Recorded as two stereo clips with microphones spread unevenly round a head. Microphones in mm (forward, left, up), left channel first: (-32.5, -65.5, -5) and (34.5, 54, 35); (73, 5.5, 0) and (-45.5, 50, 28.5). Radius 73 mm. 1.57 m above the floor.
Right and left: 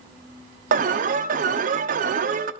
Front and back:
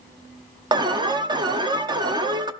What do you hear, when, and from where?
0.7 s an alarm: 100° left, 0.9 m